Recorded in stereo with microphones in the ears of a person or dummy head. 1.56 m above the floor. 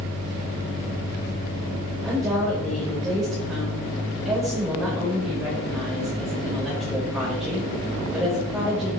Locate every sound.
2.0 s a woman speaking: 5° right (ahead or behind), 6.5 m